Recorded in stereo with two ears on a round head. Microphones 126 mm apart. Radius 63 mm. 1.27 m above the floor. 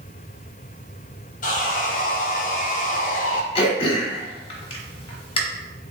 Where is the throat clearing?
40° left (ahead or behind), 1.1 m.